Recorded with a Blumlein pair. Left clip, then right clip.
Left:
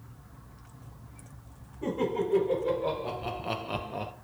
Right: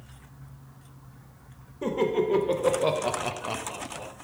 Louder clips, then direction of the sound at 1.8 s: Right 4 dB; 55° right.